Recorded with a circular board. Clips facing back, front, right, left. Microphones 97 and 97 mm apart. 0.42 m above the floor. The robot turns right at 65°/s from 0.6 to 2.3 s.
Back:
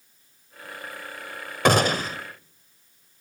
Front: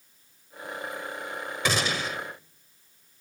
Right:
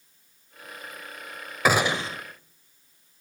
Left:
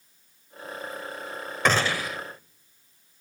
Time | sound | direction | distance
1.6 | a gunshot | 170° right | 1.2 m